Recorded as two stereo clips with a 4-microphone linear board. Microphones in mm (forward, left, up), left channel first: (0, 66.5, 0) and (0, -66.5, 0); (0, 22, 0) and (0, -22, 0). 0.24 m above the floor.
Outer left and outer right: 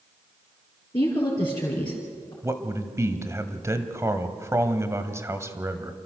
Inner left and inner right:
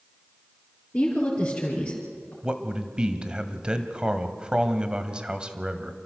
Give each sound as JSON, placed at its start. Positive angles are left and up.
{"t": 0.9, "sound": "a woman speaking", "side_deg": 35, "distance_m": 4.0}
{"t": 2.4, "sound": "a man speaking", "side_deg": -20, "distance_m": 1.3}